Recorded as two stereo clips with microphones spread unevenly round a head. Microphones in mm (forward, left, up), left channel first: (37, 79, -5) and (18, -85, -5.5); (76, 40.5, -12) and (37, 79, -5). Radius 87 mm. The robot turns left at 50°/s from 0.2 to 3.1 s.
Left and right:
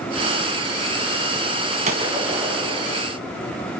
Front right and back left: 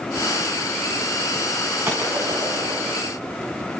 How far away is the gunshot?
About 3 m.